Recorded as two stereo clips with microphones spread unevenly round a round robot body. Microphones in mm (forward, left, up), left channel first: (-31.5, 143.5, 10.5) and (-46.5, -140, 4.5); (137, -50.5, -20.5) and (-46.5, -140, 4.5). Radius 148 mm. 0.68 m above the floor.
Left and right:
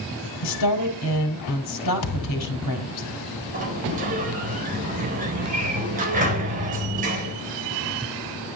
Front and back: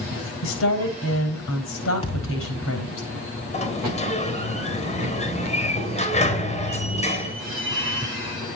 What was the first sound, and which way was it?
A woman speaking, 55° left.